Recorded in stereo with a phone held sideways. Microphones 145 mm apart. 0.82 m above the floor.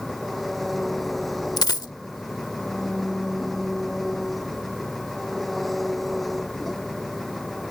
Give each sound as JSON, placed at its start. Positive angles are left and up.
{"t": 0.0, "sound": "an engine running", "side_deg": 0}
{"t": 1.6, "sound": "a dropped coin", "side_deg": 30}